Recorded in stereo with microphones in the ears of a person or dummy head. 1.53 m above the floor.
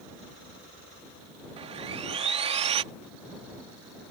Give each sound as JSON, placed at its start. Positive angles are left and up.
{"t": 1.6, "sound": "sawing", "side_deg": -30}